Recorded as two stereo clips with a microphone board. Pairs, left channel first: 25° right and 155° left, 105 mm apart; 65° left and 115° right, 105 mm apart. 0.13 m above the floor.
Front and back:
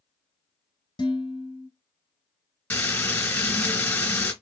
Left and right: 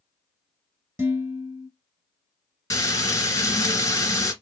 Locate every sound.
1.0 s dishes clattering: 50° right, 1.5 m
2.7 s frying: 35° left, 1.9 m